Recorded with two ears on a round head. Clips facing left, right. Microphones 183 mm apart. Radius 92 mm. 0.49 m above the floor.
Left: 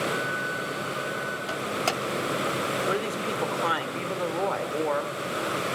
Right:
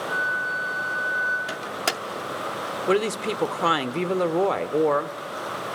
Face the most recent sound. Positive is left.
turn(degrees=-50)  # may be behind; listen again after turning